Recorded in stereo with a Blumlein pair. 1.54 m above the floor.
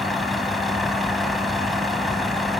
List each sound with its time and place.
0.0 s a vehicle: 5° left